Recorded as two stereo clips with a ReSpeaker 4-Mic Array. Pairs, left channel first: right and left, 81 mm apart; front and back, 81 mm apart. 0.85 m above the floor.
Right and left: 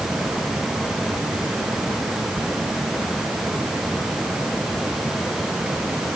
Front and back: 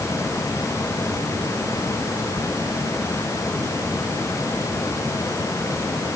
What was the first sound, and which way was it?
Only background noise.